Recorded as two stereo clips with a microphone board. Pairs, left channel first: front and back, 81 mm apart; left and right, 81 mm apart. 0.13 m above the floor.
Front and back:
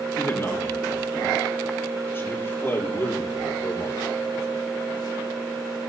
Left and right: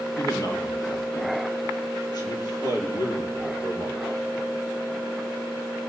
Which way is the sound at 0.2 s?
55° left.